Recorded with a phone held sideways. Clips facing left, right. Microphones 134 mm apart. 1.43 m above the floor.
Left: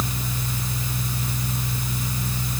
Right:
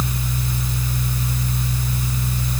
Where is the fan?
15° left (ahead or behind), 0.8 m.